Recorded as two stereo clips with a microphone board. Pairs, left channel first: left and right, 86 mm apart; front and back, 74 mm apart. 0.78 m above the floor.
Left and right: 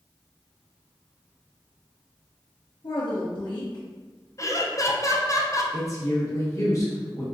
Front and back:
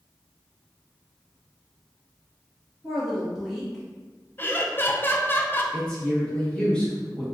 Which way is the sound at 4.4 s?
55° left.